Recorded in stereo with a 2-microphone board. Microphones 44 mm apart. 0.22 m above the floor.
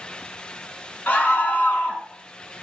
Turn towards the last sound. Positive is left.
turn(degrees=35)  # may be behind; listen again after turning